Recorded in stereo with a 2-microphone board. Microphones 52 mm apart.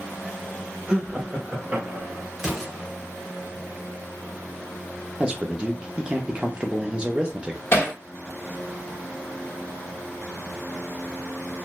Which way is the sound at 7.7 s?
50° left (ahead or behind).